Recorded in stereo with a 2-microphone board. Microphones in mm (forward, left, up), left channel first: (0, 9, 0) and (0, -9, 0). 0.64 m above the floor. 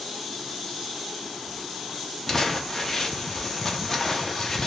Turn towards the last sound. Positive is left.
turn(degrees=30)  # may be behind; listen again after turning